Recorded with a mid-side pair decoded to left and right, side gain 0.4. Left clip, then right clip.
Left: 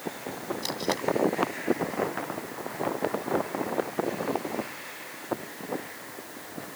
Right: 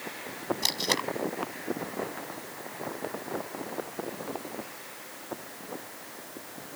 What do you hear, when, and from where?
0.6 s tape being pulled: 55° right